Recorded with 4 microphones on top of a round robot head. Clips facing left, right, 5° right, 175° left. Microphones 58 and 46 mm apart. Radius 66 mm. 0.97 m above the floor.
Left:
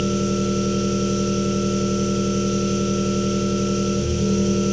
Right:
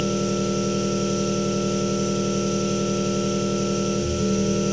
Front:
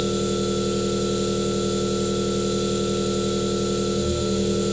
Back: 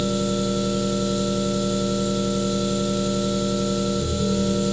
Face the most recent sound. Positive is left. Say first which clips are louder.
# left 2 dB, even
turn(degrees=50)